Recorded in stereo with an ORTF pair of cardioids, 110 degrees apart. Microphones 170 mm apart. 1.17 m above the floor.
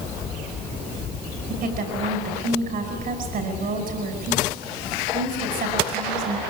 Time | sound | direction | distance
1.5 | a woman speaking | 60° right | 5.5 m